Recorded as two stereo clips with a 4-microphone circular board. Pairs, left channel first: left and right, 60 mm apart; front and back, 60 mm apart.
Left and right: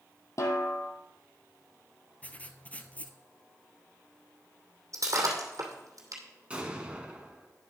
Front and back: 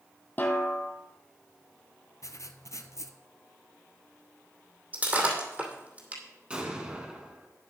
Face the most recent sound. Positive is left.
turn(degrees=-135)